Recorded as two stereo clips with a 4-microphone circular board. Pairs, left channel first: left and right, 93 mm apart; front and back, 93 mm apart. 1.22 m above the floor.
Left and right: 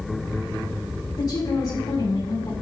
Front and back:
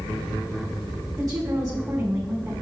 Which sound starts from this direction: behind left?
A woman speaking, at 1.1 s.